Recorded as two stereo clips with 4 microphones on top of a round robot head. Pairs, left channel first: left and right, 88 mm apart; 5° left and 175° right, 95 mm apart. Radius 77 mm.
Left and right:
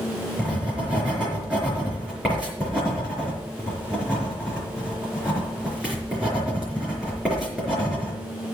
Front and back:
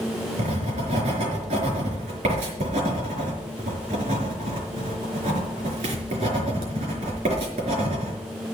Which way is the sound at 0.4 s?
175° right.